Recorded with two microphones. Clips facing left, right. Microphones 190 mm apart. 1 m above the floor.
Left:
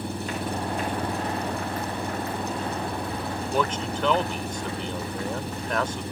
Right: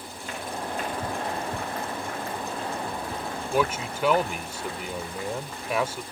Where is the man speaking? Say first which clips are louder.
Right 1 dB; 10° right (ahead or behind).